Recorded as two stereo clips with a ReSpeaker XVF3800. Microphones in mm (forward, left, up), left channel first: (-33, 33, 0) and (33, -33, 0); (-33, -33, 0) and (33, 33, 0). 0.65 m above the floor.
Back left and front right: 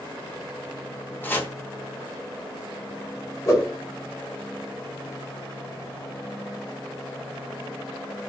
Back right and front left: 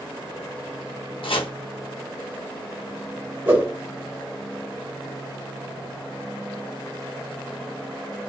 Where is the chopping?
155° right, 0.7 m.